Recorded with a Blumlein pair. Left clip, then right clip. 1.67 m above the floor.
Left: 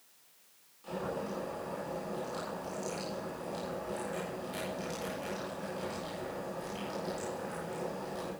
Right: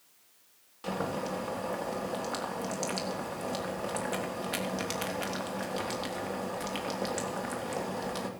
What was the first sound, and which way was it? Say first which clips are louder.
Boiling: right 4 dB; 55° right.